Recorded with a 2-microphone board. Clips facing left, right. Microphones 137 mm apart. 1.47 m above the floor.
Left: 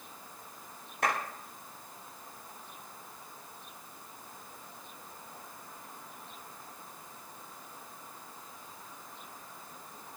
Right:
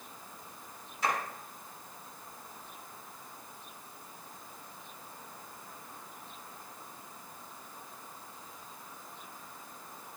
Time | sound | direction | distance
1.0 | a clap | 70° left (ahead or behind) | 9 m